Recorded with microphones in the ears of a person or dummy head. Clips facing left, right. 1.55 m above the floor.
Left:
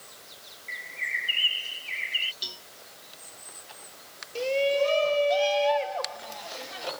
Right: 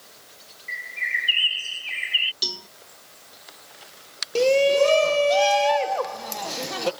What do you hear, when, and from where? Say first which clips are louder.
0.7 s a bird: right 5 dB; 70° right (ahead or behind)
2.4 s a cowbell: right 10 dB; 65° right (ahead or behind)
4.3 s a shout: right 7 dB; 65° right (ahead or behind)